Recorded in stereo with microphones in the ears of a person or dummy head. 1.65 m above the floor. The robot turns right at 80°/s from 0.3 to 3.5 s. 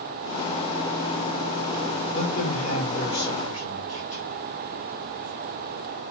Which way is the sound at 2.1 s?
35° left.